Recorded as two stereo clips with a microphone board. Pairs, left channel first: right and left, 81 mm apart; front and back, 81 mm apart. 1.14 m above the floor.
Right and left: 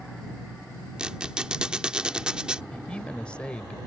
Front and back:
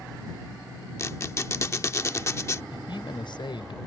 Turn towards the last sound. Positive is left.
turn(degrees=-10)